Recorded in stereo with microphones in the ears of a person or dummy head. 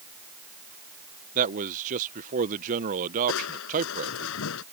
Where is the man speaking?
40° right (ahead or behind).